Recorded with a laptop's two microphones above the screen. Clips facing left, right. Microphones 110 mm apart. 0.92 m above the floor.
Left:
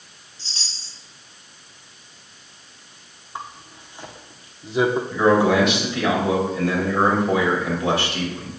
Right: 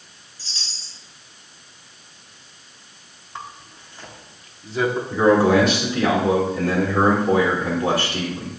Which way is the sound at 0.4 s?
25° left (ahead or behind).